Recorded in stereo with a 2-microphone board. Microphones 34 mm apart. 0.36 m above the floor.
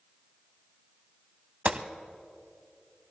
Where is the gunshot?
50° right (ahead or behind), 0.7 m.